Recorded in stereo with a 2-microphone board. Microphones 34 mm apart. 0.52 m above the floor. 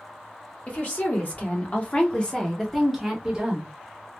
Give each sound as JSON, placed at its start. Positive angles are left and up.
{"t": 0.7, "sound": "a woman speaking", "side_deg": 45, "distance_m": 1.6}